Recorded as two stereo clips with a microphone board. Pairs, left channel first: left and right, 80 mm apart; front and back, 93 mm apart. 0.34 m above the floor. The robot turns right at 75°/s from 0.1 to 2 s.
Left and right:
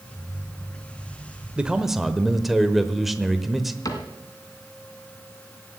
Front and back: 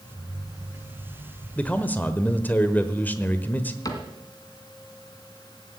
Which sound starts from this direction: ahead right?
A man speaking, at 1.6 s.